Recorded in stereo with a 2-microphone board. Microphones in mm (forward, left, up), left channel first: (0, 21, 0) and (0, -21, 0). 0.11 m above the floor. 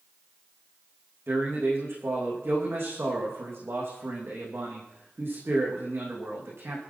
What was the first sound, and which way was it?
A man speaking, 70° right (ahead or behind).